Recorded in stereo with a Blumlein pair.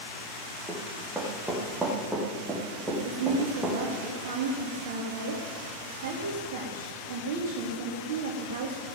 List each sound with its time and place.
0.7 s running footsteps: 5° right, 4 m
3.0 s a woman speaking: 55° right, 2 m